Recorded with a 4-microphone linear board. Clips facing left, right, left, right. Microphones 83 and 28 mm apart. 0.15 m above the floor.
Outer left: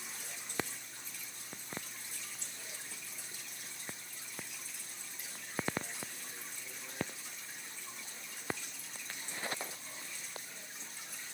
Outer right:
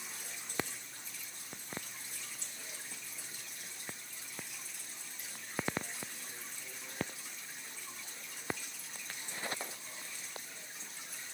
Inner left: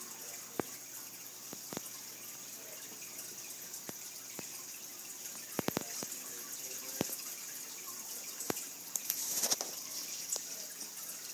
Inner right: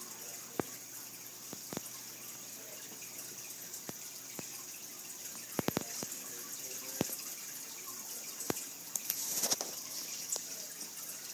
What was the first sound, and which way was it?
Only background noise.